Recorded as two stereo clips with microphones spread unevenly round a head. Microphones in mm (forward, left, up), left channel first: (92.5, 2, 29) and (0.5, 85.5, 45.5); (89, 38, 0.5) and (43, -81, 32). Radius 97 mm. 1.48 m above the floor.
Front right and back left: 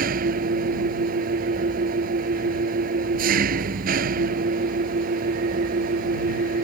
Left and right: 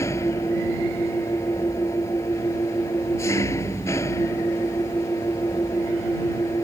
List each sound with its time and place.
0.0 s an engine running: 145° left